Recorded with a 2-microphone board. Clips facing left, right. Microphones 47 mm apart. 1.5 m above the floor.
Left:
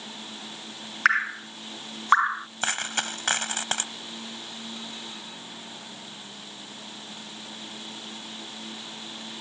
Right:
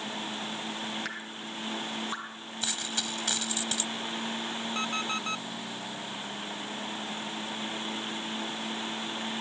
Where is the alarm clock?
75° right (ahead or behind).